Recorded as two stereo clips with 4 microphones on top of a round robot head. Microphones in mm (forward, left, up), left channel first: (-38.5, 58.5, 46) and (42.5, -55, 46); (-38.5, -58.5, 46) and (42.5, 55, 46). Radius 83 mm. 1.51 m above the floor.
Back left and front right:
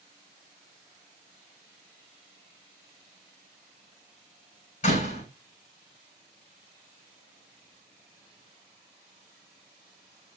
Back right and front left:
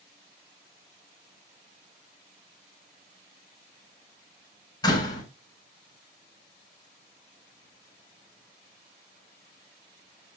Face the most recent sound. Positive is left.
turn(degrees=170)